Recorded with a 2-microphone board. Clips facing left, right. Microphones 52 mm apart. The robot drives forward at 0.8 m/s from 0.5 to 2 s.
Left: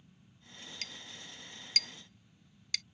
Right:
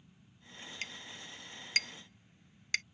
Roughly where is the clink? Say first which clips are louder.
Right 4 dB; right.